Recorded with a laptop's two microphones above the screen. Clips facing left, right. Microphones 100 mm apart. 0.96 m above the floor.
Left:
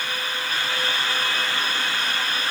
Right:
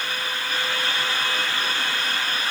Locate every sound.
Only background noise.